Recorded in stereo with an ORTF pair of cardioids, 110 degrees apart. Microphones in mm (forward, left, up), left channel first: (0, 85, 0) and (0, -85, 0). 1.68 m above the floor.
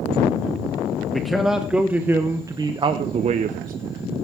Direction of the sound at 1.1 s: Straight ahead.